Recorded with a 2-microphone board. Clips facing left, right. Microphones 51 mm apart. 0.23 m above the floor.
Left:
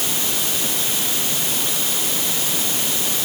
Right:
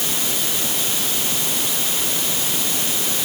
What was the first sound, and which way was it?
Only background noise.